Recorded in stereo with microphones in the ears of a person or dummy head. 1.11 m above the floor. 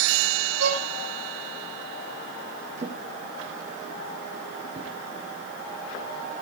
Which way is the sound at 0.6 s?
75° right (ahead or behind).